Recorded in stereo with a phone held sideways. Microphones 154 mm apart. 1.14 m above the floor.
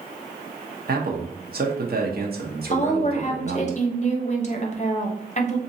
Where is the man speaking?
70° right (ahead or behind), 0.9 m.